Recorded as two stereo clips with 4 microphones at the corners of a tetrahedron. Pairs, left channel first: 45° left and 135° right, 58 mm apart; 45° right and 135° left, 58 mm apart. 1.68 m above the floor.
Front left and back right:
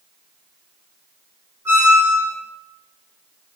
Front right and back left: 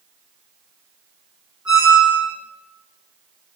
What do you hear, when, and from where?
1.6 s a squeak: 155° right, 0.9 m